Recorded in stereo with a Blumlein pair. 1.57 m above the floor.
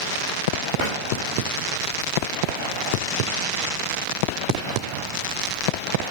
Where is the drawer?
45° left, 3.5 m.